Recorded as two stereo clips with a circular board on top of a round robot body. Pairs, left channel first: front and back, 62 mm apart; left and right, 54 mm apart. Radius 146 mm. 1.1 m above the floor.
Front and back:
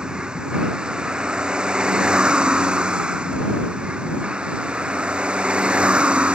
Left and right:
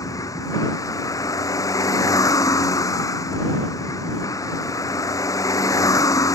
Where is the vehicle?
105° left.